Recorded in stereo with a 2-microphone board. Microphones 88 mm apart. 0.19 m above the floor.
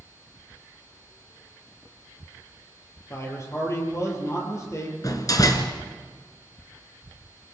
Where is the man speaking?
35° left (ahead or behind), 5 m.